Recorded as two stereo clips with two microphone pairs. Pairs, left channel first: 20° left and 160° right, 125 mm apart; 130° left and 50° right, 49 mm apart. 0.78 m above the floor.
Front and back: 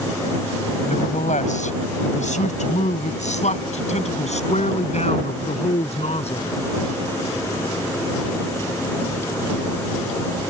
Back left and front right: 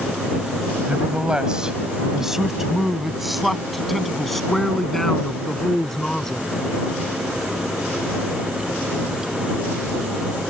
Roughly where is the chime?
No chime in this recording.